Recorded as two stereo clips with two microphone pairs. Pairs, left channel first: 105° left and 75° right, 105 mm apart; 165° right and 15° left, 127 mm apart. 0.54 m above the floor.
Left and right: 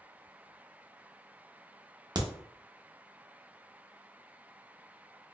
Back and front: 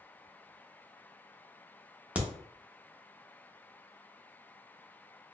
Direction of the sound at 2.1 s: 60° right.